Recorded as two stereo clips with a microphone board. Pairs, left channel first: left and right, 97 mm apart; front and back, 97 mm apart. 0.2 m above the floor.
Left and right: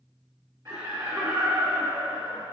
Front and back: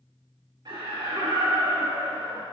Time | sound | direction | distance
0.7 | laughter | 150° right | 2.5 m